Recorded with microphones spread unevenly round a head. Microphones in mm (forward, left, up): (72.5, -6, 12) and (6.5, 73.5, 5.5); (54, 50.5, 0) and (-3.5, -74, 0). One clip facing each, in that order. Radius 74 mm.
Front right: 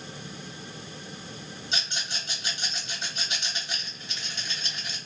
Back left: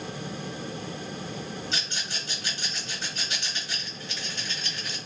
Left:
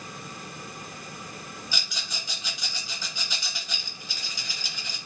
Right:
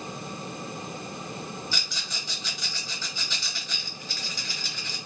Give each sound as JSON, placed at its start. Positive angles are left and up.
{"t": 1.7, "sound": "a rattle", "azimuth_deg": 0, "distance_m": 1.2}